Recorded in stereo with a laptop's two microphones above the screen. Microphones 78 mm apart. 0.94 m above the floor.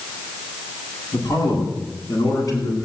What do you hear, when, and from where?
1.1 s a man speaking: 55° left (ahead or behind), 9 m; by 2.8 s 50° left (ahead or behind), 10.5 m